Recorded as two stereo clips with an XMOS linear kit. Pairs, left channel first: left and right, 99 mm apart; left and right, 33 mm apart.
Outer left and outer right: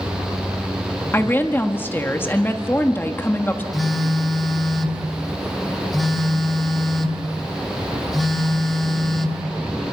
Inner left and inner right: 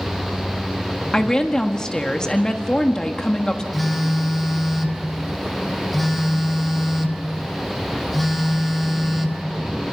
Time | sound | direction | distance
1.1 | a woman speaking | 20° left (ahead or behind) | 1.4 m
3.7 | a phone buzzing | centre (ahead or behind) | 1.4 m